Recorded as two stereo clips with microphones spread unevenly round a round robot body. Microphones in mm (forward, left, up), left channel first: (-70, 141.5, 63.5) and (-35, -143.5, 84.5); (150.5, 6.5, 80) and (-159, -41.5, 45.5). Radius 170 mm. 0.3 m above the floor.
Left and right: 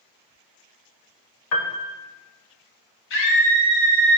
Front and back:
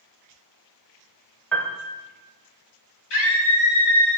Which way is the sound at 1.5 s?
100° left.